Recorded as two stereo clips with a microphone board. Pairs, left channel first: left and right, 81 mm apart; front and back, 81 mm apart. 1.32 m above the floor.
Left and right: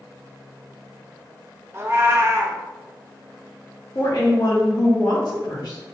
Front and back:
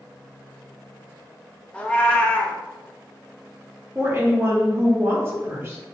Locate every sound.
1.7 s a cat meowing: 65° right, 0.5 m
4.0 s a woman speaking: 125° left, 1.3 m